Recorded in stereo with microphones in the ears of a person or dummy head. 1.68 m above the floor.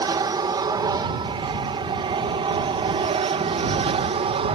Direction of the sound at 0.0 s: 20° right (ahead or behind).